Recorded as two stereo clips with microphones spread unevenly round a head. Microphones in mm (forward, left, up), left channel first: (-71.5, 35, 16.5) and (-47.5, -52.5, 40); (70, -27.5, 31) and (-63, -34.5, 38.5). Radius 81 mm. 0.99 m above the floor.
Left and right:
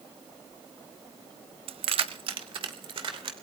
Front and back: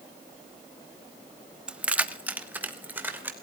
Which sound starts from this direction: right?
Keys jangling, at 1.7 s.